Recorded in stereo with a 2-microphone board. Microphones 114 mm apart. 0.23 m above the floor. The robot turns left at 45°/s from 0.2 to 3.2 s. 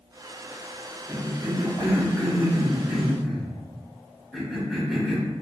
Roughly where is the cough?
Right.